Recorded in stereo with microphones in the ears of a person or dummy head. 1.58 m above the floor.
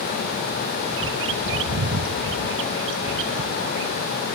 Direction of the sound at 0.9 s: 75° right (ahead or behind).